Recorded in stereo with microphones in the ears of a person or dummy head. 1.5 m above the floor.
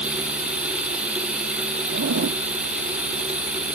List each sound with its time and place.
0.0 s running water: 10° right (ahead or behind)
1.9 s a zipper: 65° right (ahead or behind)